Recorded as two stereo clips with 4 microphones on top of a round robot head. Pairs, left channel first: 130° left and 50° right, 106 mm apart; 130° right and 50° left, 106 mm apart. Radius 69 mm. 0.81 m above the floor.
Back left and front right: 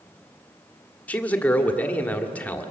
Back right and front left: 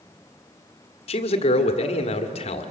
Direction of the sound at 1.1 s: 155° right.